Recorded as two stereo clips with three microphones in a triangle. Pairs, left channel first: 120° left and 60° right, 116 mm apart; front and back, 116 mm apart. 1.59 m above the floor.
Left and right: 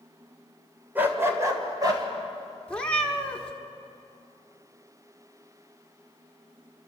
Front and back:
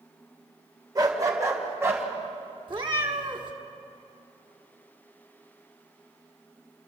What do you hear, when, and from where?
0.9 s a dog barking: 130° right, 2 m; by 2.0 s 110° right, 2.5 m
2.7 s a cat meowing: 165° right, 1.5 m